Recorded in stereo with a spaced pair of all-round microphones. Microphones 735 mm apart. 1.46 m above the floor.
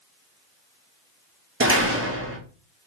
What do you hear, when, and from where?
1.6 s a door slam: 20° right (ahead or behind), 1.0 m